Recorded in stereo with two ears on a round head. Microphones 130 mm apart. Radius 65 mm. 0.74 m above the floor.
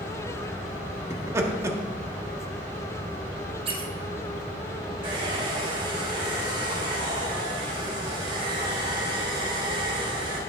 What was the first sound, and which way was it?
Laughter, 20° right (ahead or behind).